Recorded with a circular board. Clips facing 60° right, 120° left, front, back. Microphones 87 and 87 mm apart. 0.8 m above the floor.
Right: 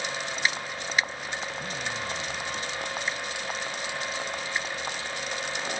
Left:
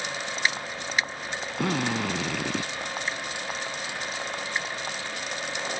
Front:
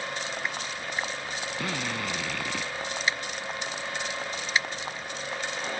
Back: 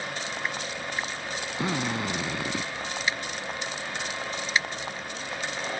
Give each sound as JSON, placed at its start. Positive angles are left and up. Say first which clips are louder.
{"t": 1.6, "sound": "a drill", "louder": "left 7 dB, back 5 dB", "azimuth_deg": 110}